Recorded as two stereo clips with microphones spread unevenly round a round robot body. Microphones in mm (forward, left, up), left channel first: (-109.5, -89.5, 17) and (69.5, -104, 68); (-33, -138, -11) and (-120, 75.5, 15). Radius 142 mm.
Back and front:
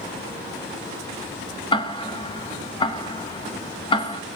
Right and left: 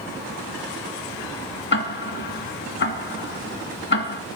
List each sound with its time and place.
1.7 s ticking: 115° right, 0.5 m